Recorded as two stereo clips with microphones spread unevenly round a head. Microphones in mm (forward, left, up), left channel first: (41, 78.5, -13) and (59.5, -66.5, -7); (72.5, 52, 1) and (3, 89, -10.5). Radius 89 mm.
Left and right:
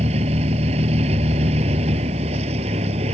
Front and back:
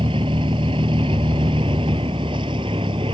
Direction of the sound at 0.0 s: 140° right.